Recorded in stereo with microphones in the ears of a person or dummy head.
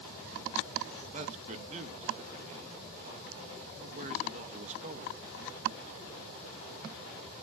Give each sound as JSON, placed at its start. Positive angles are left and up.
{"t": 1.1, "sound": "a man speaking", "side_deg": -35, "distance_m": 0.8}